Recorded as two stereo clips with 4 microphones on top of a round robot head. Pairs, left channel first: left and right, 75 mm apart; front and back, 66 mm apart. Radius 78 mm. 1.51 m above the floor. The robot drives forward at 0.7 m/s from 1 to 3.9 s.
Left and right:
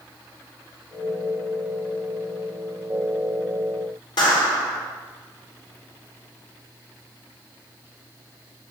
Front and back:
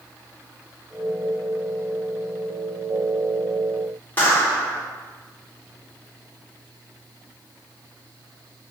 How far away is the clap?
About 4.5 m.